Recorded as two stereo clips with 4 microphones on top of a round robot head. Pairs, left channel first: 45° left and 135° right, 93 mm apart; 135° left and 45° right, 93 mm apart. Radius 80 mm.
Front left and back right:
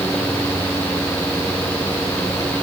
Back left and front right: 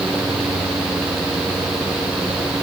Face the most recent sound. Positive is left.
No sound to turn to.